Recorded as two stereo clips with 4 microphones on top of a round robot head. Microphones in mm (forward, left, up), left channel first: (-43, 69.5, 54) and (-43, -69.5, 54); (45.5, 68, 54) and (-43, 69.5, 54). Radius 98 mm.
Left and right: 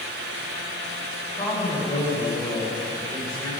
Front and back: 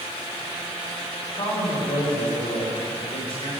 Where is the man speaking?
20° left, 5 m.